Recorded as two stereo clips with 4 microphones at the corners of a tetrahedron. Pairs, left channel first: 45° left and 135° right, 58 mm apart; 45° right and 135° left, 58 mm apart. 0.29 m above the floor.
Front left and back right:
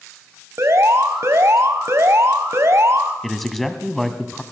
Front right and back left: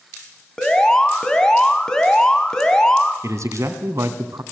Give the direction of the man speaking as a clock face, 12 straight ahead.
8 o'clock.